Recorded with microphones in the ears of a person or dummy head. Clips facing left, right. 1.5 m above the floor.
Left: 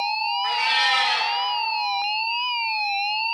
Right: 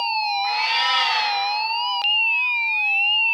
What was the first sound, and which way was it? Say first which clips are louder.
A cat meowing: even; 20° left (ahead or behind).